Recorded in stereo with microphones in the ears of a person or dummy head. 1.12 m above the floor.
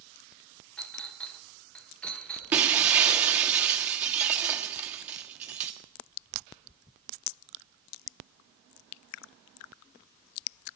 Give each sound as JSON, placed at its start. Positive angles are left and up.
{"t": 0.8, "sound": "a clink", "side_deg": 5, "distance_m": 0.8}
{"t": 2.5, "sound": "breaking glass", "side_deg": -10, "distance_m": 1.3}